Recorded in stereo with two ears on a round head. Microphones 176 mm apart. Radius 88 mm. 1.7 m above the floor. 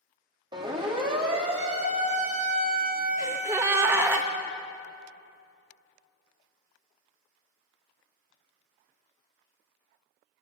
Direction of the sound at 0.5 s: 20° right (ahead or behind).